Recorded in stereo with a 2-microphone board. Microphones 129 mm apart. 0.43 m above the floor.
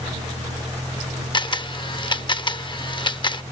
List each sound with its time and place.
0.0 s a vehicle: 50° right (ahead or behind)
1.3 s a camera shutter: 35° left (ahead or behind)